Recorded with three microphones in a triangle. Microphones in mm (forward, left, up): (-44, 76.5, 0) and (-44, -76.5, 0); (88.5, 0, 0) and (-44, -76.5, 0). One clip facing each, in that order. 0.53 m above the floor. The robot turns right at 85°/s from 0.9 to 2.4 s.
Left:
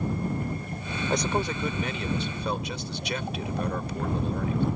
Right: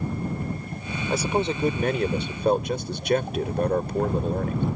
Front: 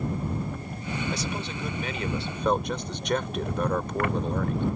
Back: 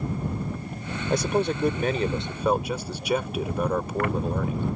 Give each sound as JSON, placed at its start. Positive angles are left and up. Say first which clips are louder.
{"t": 1.1, "sound": "a man speaking", "louder": "right 3 dB, back 8 dB", "azimuth_deg": 180}